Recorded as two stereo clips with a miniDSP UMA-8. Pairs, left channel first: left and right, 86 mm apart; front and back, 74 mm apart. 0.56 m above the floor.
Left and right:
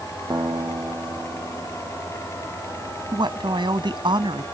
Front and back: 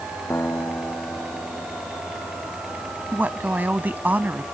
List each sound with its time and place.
0.3 s a guitar: 55° right
3.1 s a woman speaking: 115° right